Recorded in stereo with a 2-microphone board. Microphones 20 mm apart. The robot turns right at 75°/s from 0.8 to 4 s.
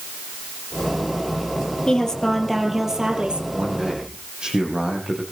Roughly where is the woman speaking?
Behind left.